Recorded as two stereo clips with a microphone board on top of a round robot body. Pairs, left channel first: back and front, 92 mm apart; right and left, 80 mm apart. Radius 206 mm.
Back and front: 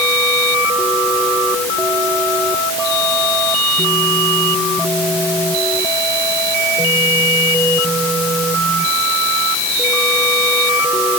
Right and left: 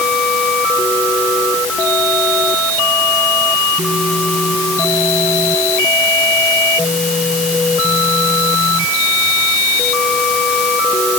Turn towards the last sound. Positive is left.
No sound to turn to.